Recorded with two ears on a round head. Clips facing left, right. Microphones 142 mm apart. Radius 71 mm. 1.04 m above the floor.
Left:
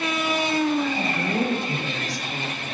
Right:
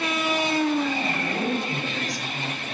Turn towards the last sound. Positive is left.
turn(degrees=90)